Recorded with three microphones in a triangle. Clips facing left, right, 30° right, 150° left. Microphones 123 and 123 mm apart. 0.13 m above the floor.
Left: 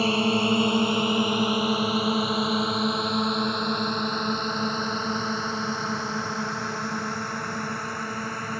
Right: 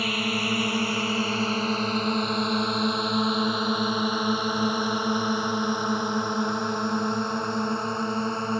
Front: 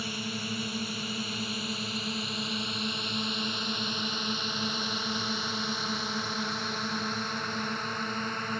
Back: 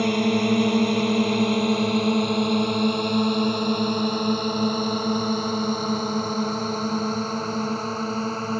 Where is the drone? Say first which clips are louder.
Left 5 dB, back 16 dB; 150° left; by 8.6 s 155° right.